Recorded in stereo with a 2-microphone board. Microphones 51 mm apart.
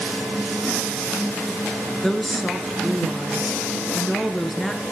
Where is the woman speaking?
5° left (ahead or behind), 1.7 m.